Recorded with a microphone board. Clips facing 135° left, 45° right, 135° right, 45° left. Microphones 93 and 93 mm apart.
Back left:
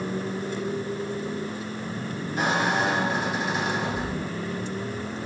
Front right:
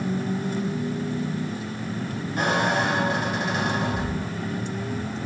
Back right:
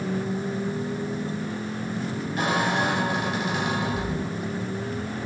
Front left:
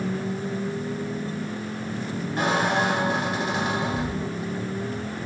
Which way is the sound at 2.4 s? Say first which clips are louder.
Front right 1 dB, front left 2 dB; 10° right.